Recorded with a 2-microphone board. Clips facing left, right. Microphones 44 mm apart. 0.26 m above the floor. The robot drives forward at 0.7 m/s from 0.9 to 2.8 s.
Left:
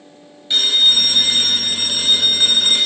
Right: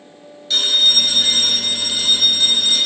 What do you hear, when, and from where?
0.5 s a phone ringing: 20° left (ahead or behind), 2 m; by 2.9 s 45° left (ahead or behind), 1.2 m